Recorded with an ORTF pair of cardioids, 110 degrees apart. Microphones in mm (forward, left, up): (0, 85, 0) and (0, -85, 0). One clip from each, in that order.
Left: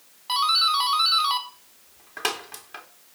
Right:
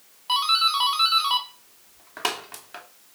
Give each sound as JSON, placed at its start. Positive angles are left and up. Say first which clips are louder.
{"t": 0.3, "sound": "a doorbell", "louder": "even", "azimuth_deg": -5, "distance_m": 2.5}